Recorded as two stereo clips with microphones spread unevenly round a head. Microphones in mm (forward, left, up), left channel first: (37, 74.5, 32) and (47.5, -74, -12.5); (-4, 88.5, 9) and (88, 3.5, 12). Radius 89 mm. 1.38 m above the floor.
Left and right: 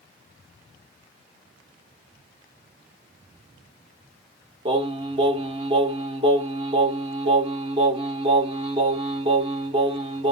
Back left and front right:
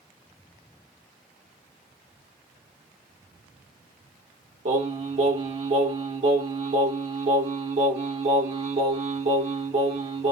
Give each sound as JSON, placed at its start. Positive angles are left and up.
{"t": 4.7, "sound": "singing", "azimuth_deg": -25, "distance_m": 1.1}